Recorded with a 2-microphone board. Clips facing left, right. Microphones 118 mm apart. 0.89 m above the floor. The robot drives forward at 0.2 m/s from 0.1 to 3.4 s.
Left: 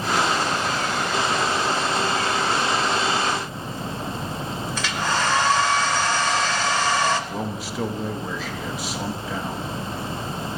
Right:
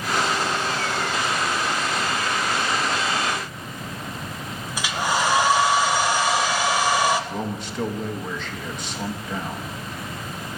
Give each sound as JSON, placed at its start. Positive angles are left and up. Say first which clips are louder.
{"t": 4.8, "sound": "a hair dryer", "louder": "right 2 dB", "side_deg": -10, "distance_m": 0.5}
{"t": 7.3, "sound": "a man speaking", "louder": "even", "side_deg": 5, "distance_m": 0.7}